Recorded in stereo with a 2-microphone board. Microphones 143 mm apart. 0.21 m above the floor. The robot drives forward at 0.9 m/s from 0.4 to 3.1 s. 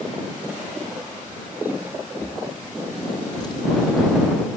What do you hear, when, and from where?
2.2 s a drawer: 20° left (ahead or behind), 3 m; by 4.6 s 30° left (ahead or behind), 2.5 m